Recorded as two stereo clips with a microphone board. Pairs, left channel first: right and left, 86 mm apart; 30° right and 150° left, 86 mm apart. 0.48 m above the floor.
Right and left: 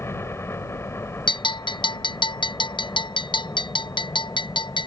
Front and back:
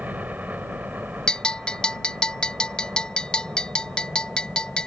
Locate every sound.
0.0 s a helicopter: 145° right
1.3 s a bell: 110° right